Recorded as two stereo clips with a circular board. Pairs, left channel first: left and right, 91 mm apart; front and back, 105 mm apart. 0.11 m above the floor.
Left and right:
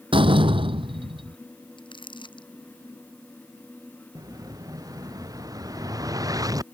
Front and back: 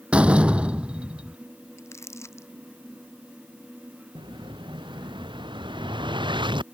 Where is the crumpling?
60° left.